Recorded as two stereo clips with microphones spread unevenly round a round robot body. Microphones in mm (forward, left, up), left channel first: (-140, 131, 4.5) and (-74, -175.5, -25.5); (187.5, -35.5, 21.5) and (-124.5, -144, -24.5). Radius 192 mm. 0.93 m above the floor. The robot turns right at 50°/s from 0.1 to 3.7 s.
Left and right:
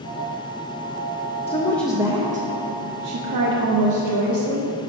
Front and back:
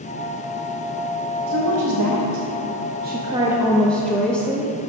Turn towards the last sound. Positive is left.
turn(degrees=-75)